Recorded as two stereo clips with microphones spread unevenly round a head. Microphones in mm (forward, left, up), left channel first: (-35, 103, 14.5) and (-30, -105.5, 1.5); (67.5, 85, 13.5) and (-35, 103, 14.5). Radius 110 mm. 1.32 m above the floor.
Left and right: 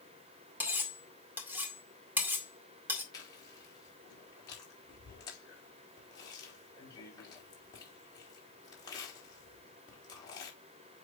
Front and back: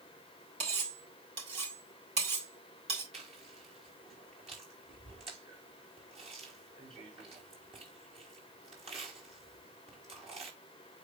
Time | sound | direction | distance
0.6 | cutlery clinking | 170° right | 2.0 m
3.1 | chewing | 165° left | 3.5 m